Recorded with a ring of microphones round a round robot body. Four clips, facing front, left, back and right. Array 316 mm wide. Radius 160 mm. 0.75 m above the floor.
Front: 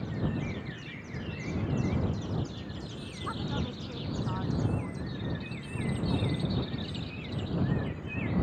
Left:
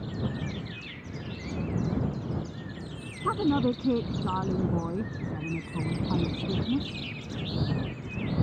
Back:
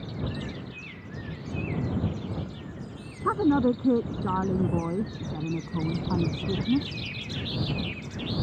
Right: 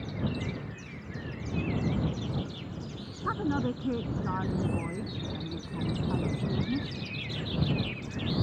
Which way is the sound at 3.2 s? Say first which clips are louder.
Left 5 dB, back 14 dB; 160° left.